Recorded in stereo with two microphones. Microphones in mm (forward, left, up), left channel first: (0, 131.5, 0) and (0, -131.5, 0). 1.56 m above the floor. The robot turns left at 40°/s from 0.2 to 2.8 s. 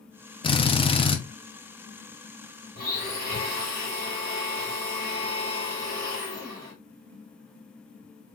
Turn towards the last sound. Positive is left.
turn(degrees=-75)  # may be behind; listen again after turning